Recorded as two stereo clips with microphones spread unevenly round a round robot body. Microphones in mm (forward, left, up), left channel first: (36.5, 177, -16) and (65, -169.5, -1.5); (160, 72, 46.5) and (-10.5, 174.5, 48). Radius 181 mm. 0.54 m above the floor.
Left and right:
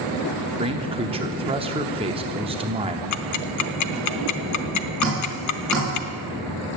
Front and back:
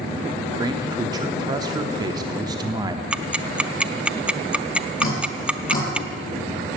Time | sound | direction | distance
0.6 | a man speaking | 155° right | 0.9 m
3.1 | ticking | 65° left | 0.8 m
5.0 | dripping | 10° left | 7 m